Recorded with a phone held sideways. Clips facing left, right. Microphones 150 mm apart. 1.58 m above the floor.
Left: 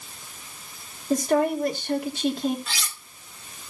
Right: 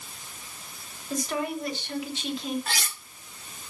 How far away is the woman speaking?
About 3 m.